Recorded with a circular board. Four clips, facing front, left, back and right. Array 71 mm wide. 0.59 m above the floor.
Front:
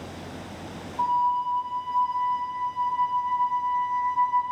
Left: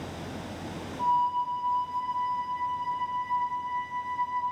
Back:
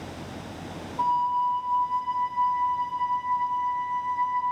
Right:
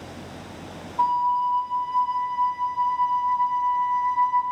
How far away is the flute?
About 1.2 m.